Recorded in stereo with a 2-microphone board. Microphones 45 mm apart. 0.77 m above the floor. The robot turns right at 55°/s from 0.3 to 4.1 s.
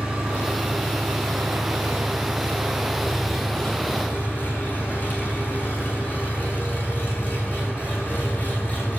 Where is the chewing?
I don't hear chewing.